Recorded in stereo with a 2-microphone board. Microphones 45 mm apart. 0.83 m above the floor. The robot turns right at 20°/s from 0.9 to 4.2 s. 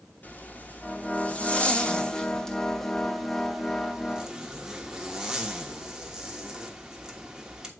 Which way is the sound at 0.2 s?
135° left.